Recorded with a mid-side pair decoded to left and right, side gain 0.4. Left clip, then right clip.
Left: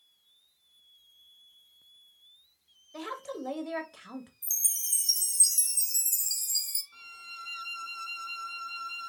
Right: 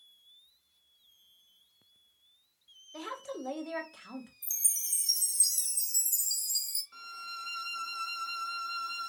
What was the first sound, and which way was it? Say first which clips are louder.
A woman speaking: left 2 dB; 10° left.